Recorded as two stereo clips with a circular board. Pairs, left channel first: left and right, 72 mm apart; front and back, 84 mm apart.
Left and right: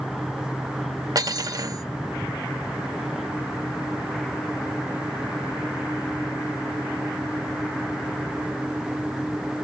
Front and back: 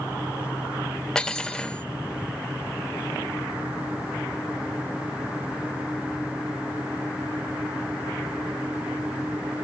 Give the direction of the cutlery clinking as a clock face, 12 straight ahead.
3 o'clock.